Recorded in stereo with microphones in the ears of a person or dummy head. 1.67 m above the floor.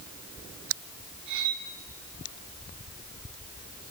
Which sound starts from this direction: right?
Cutlery clinking, at 1.3 s.